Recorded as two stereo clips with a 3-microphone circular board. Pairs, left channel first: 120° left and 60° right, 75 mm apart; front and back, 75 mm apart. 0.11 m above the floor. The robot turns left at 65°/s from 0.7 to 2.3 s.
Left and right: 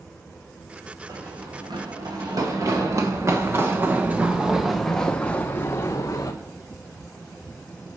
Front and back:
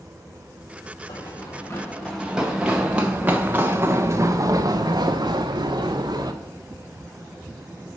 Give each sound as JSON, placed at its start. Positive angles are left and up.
{"t": 1.1, "sound": "running footsteps", "azimuth_deg": -10, "distance_m": 2.0}